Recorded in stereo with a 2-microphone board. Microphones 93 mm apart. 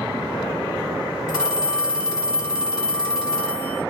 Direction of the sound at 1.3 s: 30° left (ahead or behind).